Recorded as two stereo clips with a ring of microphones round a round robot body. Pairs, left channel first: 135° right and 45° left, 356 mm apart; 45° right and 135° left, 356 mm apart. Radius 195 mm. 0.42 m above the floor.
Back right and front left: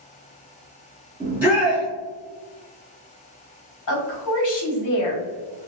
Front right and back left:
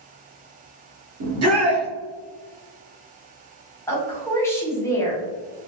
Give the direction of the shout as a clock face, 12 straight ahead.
8 o'clock.